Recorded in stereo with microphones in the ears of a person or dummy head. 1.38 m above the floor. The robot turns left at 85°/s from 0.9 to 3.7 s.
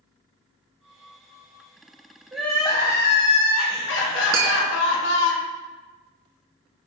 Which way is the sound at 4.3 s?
20° right (ahead or behind).